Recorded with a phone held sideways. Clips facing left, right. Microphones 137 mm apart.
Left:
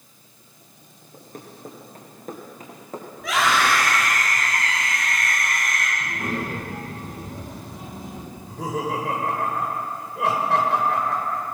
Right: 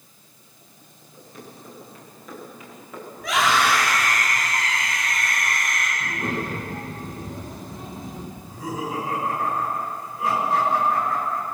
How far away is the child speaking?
About 9.5 m.